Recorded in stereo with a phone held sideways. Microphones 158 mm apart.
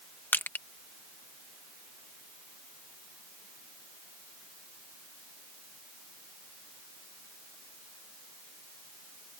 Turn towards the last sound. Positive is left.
turn(degrees=10)  # may be behind; listen again after turning